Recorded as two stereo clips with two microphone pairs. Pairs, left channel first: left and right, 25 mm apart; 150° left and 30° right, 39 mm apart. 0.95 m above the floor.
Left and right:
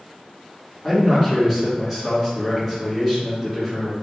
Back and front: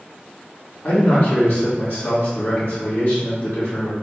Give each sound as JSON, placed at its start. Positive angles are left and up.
{"t": 0.8, "sound": "a man speaking", "azimuth_deg": -175, "distance_m": 1.8}